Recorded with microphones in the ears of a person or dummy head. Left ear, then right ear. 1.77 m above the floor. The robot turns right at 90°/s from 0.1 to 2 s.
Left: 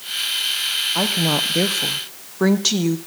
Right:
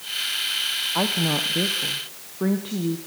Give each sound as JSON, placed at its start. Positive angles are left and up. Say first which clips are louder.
{"t": 0.9, "sound": "a woman speaking", "louder": "left 3 dB", "azimuth_deg": -10, "distance_m": 1.0}